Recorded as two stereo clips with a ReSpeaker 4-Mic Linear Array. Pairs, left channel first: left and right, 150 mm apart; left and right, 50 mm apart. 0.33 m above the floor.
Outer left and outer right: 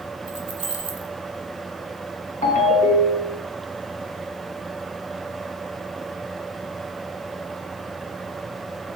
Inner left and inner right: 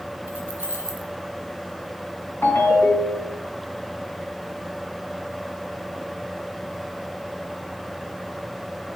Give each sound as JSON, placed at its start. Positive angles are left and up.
{"t": 0.3, "sound": "keys jangling", "side_deg": -40, "distance_m": 2.0}
{"t": 2.4, "sound": "a ringtone", "side_deg": 55, "distance_m": 1.7}